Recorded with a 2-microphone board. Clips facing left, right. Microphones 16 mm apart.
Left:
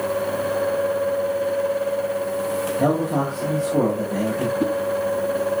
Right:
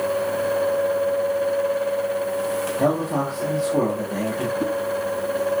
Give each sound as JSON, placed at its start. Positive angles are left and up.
{"t": 2.8, "sound": "a man speaking", "side_deg": -45, "distance_m": 8.0}
{"t": 4.6, "sound": "a whoosh", "side_deg": 20, "distance_m": 2.0}